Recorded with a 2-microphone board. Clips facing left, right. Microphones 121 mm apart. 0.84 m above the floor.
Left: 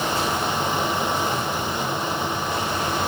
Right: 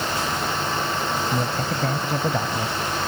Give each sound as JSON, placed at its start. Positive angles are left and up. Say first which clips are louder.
{"t": 1.3, "sound": "a man speaking", "louder": "right 1 dB", "side_deg": -75}